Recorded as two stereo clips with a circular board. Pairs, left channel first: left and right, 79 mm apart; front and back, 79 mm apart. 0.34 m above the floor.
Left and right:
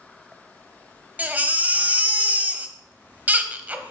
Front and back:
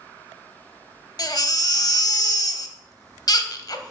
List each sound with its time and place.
1.2 s a baby crying: 25° right, 0.7 m